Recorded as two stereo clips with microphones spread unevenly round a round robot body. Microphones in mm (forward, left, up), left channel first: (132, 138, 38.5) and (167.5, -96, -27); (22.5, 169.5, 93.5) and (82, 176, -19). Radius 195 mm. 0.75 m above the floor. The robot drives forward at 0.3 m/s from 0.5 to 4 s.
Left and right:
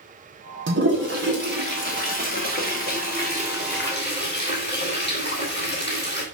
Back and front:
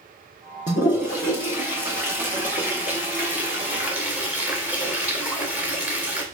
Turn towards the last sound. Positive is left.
turn(degrees=-145)